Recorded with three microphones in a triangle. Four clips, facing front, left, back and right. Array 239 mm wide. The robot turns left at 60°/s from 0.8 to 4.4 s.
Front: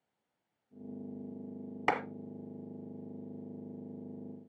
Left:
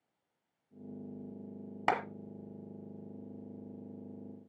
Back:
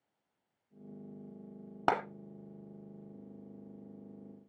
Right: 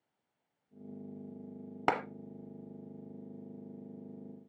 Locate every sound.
1.9 s a clap: 160° right, 1.2 m; by 2.0 s 165° right, 1.2 m